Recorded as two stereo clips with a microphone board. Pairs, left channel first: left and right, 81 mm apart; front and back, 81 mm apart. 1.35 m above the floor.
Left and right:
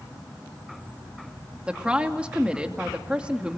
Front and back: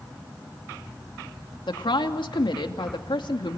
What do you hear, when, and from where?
1.7 s a woman speaking: 15° right, 2.5 m